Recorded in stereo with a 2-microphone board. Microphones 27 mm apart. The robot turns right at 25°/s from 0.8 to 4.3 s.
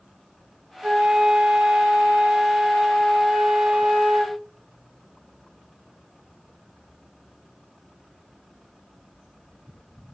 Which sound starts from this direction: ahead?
A flute, at 0.8 s.